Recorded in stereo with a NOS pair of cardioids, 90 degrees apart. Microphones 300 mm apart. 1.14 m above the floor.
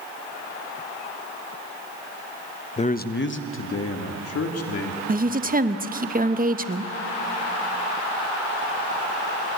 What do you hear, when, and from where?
2.8 s a man speaking: 20° left, 0.7 m; by 5.0 s 55° left, 2.5 m
5.1 s a woman speaking: 30° right, 0.9 m